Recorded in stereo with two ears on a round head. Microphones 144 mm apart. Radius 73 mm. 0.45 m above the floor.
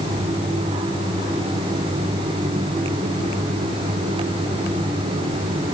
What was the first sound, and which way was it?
Only background noise.